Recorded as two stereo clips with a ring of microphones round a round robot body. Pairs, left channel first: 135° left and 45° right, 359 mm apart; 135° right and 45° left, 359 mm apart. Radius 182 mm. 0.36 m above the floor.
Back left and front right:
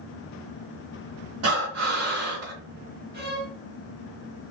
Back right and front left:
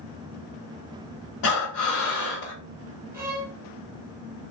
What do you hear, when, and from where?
1.4 s breathing: 95° right, 1.2 m
3.1 s a violin: 30° right, 1.4 m